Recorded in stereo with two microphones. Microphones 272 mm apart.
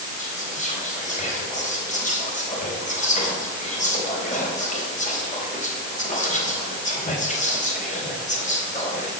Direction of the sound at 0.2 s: 25° left (ahead or behind).